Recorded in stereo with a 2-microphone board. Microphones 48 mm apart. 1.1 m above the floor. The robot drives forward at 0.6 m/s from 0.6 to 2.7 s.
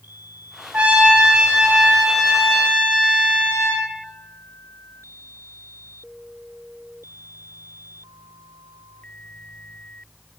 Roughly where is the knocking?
No knocking in this recording.